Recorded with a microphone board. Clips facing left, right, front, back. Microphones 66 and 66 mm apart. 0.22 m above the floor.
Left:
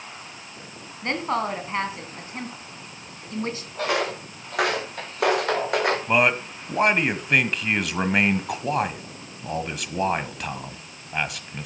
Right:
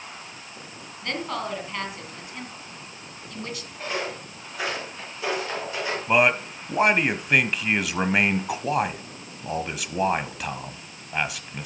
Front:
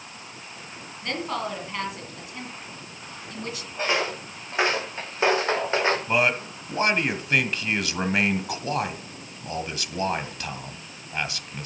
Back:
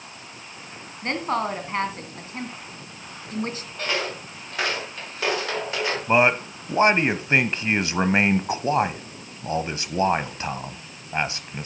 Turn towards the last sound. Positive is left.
turn(degrees=-175)